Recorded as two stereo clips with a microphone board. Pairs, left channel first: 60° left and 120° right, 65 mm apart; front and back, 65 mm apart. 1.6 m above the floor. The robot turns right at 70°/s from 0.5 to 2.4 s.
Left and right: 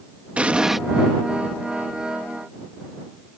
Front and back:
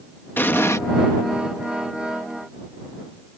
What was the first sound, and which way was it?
An explosion, 50° right.